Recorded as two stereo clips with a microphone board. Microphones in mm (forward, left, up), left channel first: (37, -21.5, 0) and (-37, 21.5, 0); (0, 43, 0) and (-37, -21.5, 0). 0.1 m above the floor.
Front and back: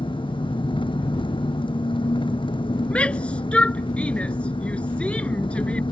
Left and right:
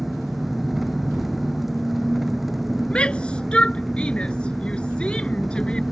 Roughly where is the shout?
Ahead.